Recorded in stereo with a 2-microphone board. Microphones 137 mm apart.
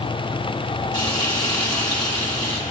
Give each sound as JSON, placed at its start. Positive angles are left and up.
{"t": 0.9, "sound": "frying", "side_deg": 30, "distance_m": 1.4}